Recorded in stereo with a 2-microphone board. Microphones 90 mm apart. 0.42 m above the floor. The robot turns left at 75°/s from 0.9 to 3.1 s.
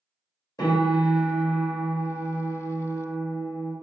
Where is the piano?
55° left, 1.7 m; by 3.7 s 110° right, 1.7 m.